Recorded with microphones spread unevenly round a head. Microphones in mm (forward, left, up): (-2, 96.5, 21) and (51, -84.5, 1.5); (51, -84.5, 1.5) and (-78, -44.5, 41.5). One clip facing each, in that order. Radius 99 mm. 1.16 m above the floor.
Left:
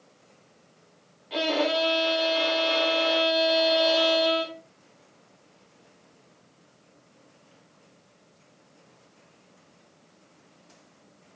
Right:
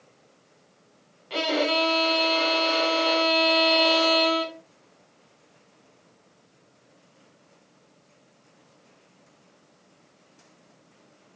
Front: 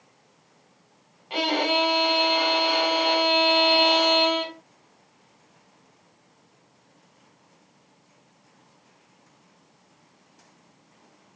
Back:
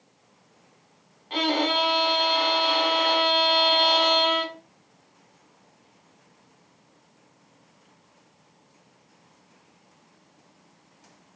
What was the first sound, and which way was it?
A violin, 100° right.